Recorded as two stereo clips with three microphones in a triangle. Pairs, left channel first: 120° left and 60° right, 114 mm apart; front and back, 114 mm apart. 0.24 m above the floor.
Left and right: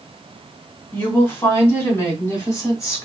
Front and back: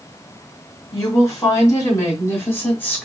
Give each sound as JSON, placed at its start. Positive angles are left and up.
{"t": 0.9, "sound": "a woman speaking", "azimuth_deg": 50, "distance_m": 3.0}